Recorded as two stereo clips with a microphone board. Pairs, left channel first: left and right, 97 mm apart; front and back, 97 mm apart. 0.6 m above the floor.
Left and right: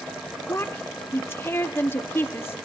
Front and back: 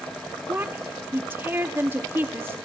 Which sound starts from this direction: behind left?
A woman speaking, at 0.5 s.